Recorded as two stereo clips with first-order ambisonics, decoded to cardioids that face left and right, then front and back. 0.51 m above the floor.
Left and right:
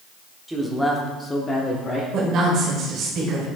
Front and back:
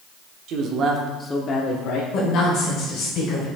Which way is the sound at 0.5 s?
175° right.